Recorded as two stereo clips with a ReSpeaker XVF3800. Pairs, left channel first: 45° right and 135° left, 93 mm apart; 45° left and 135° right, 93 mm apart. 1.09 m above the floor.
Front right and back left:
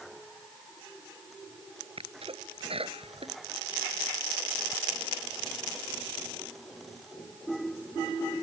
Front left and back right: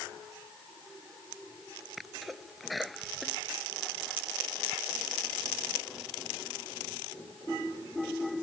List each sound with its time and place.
2.0 s a sneeze: 135° left